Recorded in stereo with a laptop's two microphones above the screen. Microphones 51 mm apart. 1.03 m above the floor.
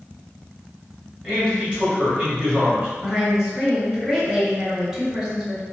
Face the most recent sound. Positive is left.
turn(degrees=-15)  # may be behind; listen again after turning